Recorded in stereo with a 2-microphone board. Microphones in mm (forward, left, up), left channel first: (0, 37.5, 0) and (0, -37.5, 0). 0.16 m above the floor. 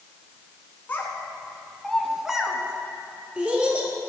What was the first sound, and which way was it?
A child speaking, 25° left (ahead or behind).